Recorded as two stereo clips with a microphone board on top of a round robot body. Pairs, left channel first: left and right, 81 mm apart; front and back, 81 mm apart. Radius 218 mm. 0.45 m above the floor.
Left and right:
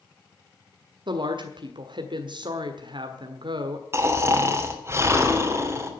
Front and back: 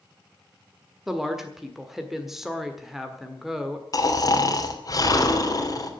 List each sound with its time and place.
1.1 s a woman speaking: 95° right, 1.6 m
3.9 s snoring: 35° right, 3 m